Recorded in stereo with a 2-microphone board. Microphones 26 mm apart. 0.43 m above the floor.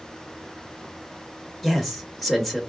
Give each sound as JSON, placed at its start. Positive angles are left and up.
{"t": 1.6, "sound": "a man speaking", "side_deg": -5, "distance_m": 1.2}